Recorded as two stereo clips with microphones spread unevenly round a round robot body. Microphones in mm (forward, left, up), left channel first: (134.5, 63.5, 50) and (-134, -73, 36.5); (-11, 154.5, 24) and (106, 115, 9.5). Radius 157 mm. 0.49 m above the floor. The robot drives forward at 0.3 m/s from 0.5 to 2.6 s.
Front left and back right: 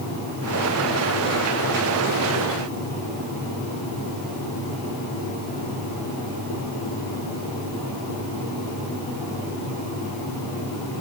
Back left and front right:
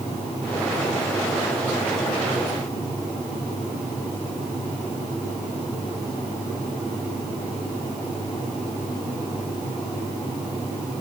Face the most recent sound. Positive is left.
No sound to turn to.